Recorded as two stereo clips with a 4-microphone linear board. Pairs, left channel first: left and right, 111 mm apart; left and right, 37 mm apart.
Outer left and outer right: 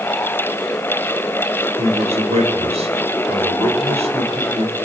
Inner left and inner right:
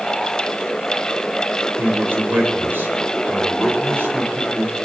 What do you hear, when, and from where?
1.8 s a man speaking: 70° right (ahead or behind), 3.5 m